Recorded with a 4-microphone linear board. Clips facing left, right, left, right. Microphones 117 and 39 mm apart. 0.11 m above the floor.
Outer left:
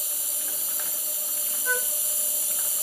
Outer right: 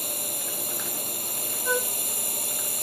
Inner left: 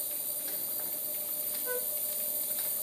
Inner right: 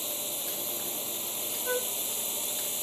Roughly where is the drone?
Right.